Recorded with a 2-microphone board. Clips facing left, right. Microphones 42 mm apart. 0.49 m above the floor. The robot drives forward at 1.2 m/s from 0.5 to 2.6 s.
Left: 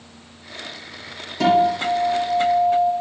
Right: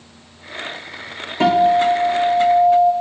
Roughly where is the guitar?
Right.